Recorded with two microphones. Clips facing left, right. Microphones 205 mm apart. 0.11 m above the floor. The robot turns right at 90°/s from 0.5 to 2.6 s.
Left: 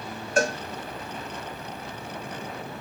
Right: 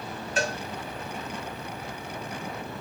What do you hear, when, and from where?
0.4 s a cowbell: 50° left (ahead or behind), 0.9 m